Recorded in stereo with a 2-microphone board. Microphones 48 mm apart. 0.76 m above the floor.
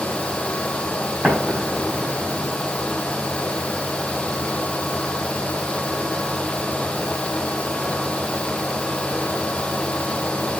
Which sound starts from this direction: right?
An explosion, at 1.2 s.